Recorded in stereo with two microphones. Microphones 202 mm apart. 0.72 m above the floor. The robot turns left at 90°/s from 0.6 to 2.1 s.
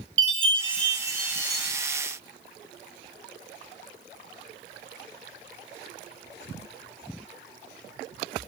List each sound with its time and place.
0.2 s a chime: 85° right, 4 m; by 1.7 s straight behind, 4 m